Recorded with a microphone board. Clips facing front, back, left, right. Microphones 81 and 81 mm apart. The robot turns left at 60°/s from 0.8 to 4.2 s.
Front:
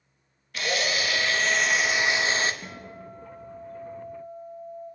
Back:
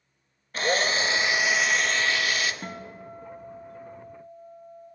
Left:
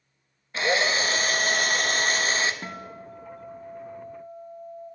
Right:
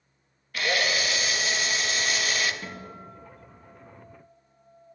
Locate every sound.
0.5 s a drill: 145° left, 0.8 m; by 2.5 s 40° left, 0.8 m
2.6 s a guitar: 145° left, 1.6 m; by 4.9 s 50° left, 1.6 m